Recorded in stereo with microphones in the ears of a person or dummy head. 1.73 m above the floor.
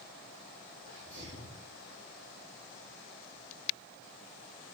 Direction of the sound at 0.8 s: 45° right (ahead or behind).